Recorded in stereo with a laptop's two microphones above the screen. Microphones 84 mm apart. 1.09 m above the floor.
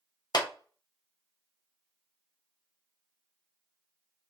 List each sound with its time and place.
0.3 s a clap: 55° left (ahead or behind), 0.8 m